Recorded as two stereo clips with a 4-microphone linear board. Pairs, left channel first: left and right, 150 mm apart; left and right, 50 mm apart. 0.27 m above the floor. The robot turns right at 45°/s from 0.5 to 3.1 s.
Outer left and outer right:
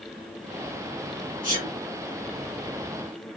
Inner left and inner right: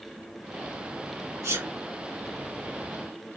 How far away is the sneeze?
About 3 m.